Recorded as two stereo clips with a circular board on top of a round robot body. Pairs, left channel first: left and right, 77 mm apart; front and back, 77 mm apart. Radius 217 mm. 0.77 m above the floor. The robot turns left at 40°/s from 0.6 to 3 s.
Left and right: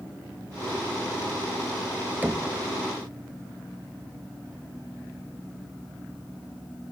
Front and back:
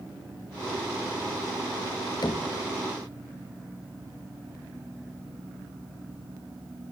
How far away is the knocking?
About 1.1 m.